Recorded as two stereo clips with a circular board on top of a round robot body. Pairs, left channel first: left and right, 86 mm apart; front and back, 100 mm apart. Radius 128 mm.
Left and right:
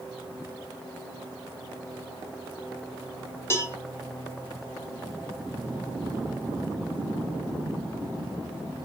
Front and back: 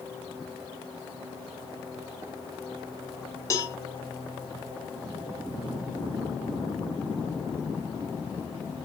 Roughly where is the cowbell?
Ahead left.